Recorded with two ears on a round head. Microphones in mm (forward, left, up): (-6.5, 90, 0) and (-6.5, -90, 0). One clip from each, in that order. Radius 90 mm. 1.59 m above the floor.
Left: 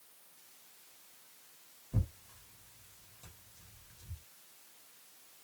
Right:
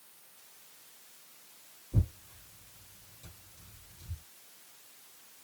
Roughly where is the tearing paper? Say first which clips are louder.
Right 4 dB; left.